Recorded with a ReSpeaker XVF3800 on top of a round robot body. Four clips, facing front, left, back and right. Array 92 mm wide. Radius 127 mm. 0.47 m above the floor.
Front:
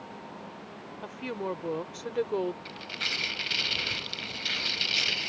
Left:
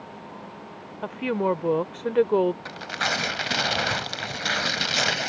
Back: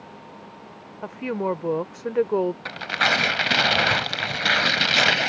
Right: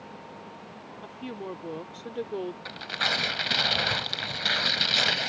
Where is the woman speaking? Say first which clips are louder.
Left 13 dB, back 8 dB; 125° left.